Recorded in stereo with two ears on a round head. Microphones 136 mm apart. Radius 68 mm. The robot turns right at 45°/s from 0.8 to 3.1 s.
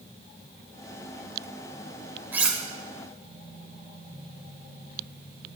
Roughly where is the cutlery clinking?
Centre.